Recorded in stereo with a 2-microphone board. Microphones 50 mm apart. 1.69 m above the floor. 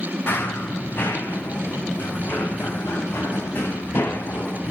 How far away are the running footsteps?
About 6 m.